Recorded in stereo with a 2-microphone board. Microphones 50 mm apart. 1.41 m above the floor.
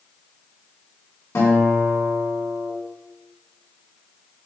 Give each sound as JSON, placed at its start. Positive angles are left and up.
{"t": 1.4, "sound": "a guitar", "side_deg": 70, "distance_m": 4.5}